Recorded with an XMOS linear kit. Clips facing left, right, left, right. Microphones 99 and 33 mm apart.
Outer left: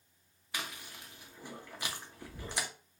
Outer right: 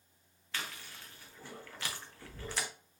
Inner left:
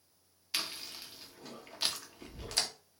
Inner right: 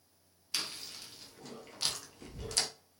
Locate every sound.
0.5 s chewing: 15° left (ahead or behind), 0.7 m